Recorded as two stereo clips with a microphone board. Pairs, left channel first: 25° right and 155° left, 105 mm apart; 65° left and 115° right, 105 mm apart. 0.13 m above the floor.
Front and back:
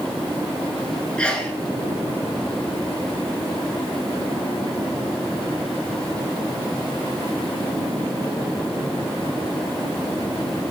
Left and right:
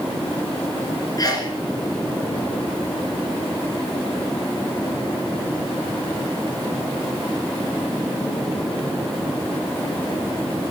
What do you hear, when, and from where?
1.2 s a sneeze: 55° left, 2 m